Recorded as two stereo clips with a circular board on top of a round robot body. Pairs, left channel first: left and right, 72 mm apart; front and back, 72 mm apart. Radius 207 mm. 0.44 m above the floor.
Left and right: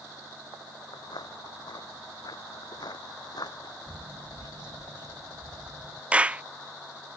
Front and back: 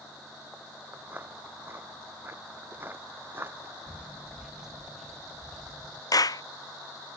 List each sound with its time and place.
0.9 s footsteps: 115° left; by 3.8 s 120° left
3.9 s footsteps: 110° right; by 6.0 s 85° right
6.1 s a clap: 20° right